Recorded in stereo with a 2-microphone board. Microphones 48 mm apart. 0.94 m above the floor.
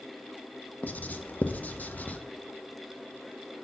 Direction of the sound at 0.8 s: 35° left (ahead or behind).